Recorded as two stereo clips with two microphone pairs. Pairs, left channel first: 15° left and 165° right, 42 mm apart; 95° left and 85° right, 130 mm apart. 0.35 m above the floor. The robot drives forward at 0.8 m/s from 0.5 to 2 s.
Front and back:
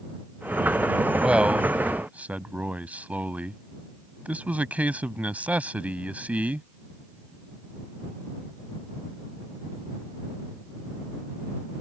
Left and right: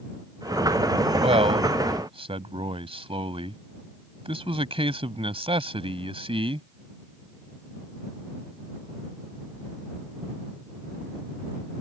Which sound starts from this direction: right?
A man speaking, at 1.2 s.